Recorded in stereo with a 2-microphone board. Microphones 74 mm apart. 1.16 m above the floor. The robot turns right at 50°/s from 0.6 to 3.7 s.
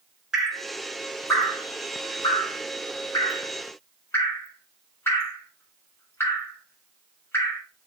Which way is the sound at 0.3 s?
10° right (ahead or behind).